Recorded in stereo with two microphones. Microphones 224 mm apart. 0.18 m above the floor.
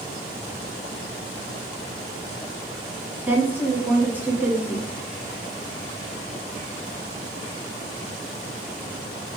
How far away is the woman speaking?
About 1.6 m.